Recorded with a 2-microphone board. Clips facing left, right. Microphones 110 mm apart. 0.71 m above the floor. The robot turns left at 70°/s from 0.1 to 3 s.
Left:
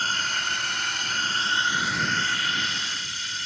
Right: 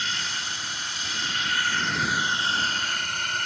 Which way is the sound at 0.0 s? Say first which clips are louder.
Left 4 dB; 130° left.